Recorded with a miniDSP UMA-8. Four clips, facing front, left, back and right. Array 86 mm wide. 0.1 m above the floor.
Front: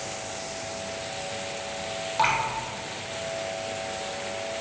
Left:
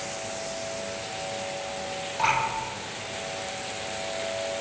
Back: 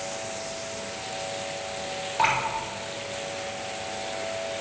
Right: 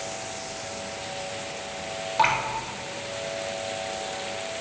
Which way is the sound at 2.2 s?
55° right.